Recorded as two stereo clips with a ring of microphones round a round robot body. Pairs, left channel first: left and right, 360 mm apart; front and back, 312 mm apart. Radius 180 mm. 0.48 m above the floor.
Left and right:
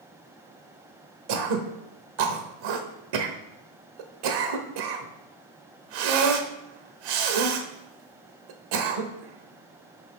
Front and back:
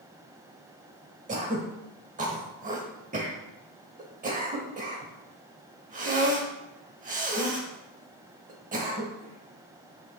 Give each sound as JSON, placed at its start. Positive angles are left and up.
{"t": 1.3, "sound": "throat clearing", "azimuth_deg": -110, "distance_m": 1.0}